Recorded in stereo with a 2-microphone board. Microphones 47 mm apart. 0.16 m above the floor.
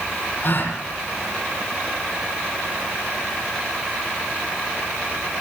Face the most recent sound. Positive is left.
turn(degrees=50)  # may be behind; listen again after turning